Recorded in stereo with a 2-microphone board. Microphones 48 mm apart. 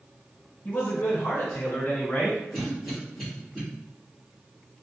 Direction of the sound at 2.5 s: 5° right (ahead or behind).